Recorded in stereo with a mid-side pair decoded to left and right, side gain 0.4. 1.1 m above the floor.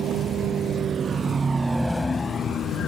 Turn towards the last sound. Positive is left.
turn(degrees=70)